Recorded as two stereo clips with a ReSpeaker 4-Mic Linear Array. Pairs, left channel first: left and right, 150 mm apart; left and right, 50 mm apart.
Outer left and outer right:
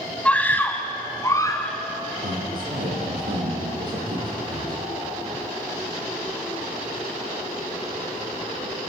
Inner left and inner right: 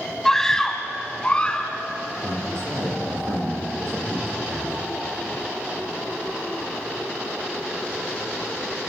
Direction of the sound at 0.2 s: 10° left (ahead or behind).